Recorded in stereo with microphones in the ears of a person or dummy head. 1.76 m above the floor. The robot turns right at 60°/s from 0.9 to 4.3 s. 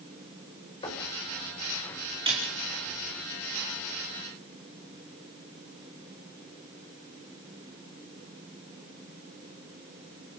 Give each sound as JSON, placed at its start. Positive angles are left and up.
{"t": 0.8, "sound": "knocking", "side_deg": 30, "distance_m": 6.0}
{"t": 2.3, "sound": "a snare drum", "side_deg": -25, "distance_m": 5.0}